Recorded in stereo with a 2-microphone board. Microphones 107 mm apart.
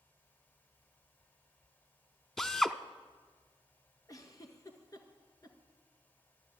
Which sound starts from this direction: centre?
A drill, at 2.4 s.